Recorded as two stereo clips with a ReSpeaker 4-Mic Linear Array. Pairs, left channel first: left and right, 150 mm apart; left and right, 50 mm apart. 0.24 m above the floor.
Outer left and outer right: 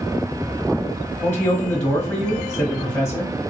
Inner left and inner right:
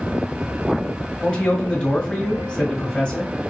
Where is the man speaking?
20° left (ahead or behind), 1.0 m.